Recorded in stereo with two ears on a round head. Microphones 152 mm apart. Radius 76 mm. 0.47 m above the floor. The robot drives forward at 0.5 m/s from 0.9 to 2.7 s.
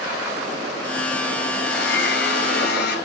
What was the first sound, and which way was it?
A blender, 65° left (ahead or behind).